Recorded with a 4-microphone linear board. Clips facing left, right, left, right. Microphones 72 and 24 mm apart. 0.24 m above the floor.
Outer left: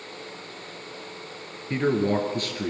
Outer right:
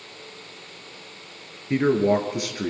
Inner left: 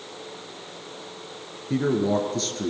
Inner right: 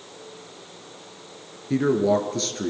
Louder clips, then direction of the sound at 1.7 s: Outer right 4 dB, inner right 3 dB; 10° right (ahead or behind).